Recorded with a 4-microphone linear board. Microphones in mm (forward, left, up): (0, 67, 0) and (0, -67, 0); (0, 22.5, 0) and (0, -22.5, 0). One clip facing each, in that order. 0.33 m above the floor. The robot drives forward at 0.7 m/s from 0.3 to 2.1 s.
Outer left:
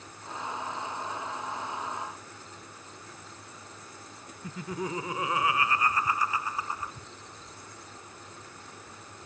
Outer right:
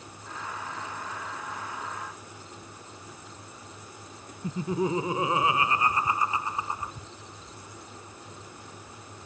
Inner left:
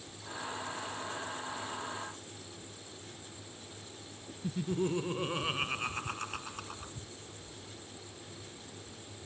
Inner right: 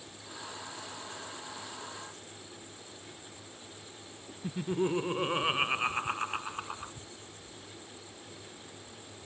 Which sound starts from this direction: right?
Laughter, at 4.4 s.